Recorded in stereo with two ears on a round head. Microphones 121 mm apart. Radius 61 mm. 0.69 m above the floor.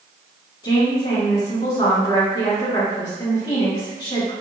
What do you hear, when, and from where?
0.6 s a woman speaking: 30° left (ahead or behind), 1.4 m